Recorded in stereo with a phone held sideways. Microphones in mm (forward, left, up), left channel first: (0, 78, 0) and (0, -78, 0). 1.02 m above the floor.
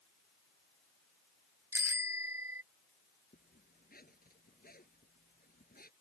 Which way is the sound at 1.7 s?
15° right (ahead or behind).